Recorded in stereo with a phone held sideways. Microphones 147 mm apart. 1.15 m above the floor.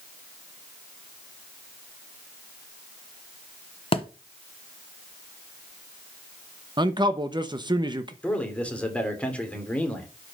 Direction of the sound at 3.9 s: 40° left (ahead or behind).